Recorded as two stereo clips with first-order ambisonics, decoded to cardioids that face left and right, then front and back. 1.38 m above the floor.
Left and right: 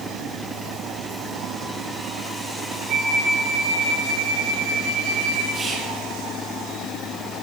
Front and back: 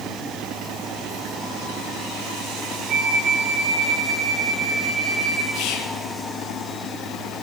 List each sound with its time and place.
2.9 s a flute: 135° right, 2 m
5.5 s whispering: 20° right, 0.6 m